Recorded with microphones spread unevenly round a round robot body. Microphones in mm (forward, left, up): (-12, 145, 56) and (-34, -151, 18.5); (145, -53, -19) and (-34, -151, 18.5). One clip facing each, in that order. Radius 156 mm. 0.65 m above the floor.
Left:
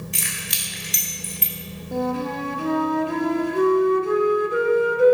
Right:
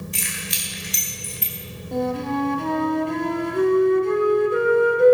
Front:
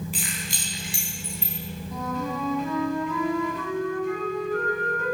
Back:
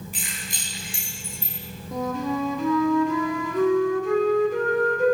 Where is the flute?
175° left, 1.4 m.